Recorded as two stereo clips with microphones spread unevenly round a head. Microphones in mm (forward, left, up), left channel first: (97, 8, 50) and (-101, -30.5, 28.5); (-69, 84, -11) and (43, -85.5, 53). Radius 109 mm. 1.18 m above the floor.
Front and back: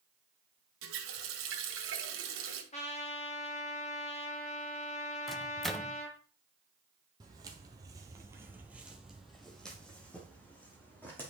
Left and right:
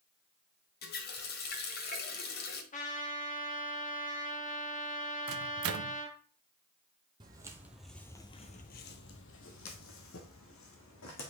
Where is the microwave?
80° right, 0.6 m.